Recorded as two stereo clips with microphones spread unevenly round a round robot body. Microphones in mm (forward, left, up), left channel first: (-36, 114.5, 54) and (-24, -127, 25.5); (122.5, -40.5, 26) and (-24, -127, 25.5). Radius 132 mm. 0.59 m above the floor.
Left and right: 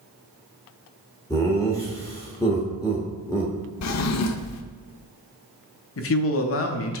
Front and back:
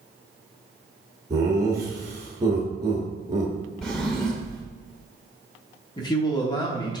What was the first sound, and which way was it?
Laughter, 170° left.